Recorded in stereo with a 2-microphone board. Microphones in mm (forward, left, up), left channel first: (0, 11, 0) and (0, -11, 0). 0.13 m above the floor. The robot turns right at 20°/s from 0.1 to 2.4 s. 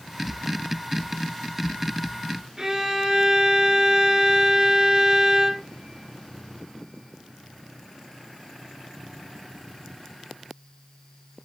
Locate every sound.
2.6 s a violin: 25° right (ahead or behind), 0.8 m